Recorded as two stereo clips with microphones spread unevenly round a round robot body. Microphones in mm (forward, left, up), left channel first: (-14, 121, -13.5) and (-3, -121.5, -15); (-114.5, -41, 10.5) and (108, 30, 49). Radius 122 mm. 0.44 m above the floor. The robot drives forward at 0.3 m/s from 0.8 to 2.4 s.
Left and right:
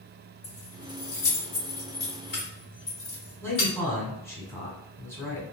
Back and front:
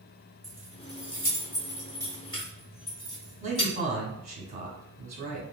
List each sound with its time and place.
0.4 s keys jangling: 115° left, 1.6 m; by 3.7 s 130° left, 1.8 m
3.4 s a man speaking: 35° left, 1.0 m